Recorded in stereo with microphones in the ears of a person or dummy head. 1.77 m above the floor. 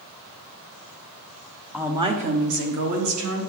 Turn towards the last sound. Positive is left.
turn(degrees=-75)  # may be behind; listen again after turning